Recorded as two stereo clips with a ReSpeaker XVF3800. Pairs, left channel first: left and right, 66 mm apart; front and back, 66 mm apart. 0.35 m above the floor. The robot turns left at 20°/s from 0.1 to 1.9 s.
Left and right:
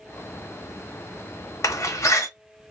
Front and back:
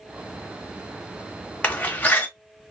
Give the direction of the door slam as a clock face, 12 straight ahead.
10 o'clock.